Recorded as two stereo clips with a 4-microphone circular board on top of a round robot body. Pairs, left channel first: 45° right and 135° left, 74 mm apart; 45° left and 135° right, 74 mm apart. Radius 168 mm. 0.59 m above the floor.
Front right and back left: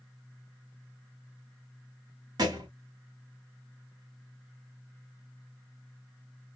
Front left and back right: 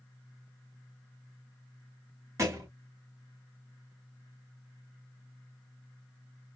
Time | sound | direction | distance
2.4 | a thud | 170° left | 1.0 m